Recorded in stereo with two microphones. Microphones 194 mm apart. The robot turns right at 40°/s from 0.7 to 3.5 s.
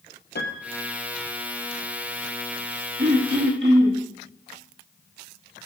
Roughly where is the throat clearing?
Right.